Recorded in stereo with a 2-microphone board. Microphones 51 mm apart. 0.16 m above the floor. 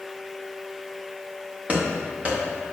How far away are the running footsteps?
About 2.5 m.